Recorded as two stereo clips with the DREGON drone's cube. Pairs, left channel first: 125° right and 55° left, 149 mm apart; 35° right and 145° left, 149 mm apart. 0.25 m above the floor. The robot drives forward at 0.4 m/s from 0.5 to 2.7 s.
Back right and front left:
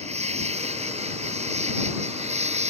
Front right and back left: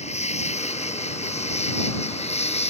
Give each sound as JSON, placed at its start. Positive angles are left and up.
{"t": 0.0, "sound": "an insect", "azimuth_deg": 10}